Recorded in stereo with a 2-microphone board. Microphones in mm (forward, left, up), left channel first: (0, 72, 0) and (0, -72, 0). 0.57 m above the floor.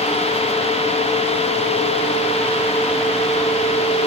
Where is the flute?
No flute in this recording.